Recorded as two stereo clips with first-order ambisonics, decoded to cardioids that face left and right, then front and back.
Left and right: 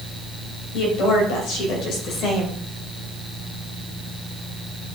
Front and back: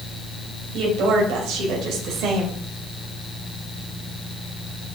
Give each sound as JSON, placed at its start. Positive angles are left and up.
{"t": 0.7, "sound": "a woman speaking", "azimuth_deg": 130, "distance_m": 3.0}